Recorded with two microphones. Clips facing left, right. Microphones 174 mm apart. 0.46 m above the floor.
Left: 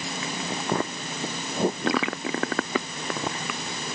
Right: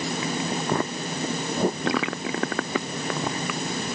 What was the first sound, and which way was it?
Only background noise.